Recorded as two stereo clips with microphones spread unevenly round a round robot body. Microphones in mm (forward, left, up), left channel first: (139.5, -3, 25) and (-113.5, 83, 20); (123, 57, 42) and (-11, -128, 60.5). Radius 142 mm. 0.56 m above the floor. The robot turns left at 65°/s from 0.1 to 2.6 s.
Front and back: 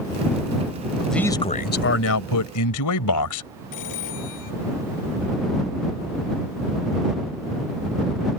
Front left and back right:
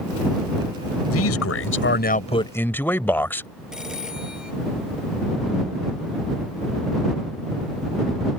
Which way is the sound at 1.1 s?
70° left.